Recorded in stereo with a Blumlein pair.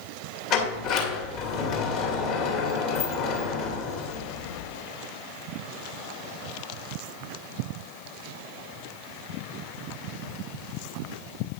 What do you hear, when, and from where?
0.5 s a sliding door: 40° left, 2 m